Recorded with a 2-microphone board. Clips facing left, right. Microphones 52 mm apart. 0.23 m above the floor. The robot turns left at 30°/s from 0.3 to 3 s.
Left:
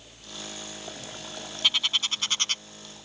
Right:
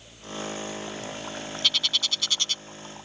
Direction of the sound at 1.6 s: 20° left (ahead or behind).